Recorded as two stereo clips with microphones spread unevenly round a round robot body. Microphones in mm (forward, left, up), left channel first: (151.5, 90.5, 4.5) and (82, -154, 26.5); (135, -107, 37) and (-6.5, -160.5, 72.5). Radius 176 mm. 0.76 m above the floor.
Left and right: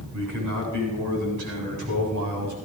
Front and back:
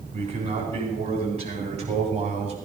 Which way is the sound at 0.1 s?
110° right.